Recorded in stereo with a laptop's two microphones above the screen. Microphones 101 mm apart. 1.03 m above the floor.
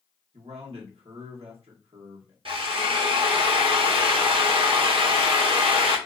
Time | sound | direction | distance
0.3 | a man speaking | 80° right | 0.8 m
2.5 | a drill | 60° right (ahead or behind) | 0.7 m